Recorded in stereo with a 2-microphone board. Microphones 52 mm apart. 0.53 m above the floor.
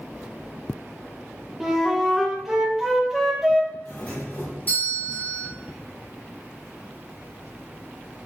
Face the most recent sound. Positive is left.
turn(degrees=45)  # may be behind; listen again after turning